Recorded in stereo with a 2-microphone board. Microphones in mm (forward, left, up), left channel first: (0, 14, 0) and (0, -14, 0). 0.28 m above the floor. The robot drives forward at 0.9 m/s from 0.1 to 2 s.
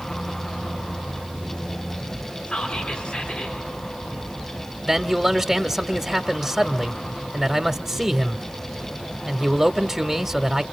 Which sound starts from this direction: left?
Whispering, at 2.5 s.